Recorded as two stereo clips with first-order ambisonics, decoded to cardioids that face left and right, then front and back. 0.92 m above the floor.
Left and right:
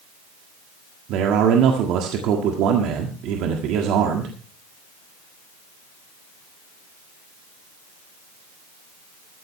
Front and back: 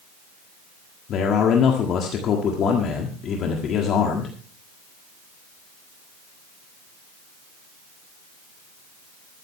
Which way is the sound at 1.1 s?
50° right.